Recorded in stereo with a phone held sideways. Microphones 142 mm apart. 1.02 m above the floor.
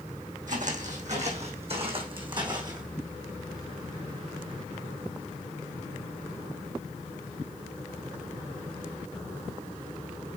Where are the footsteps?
65° right (ahead or behind), 2.5 m; by 2.8 s 30° right (ahead or behind), 2.5 m.